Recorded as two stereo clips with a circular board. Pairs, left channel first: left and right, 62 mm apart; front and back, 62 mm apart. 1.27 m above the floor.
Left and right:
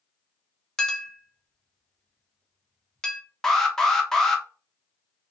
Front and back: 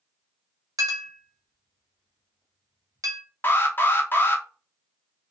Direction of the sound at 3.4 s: 10° left.